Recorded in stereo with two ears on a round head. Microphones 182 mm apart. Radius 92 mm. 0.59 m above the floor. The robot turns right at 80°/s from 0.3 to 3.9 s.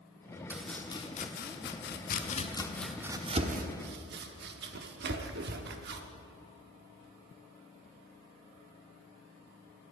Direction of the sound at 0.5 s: 10° right (ahead or behind).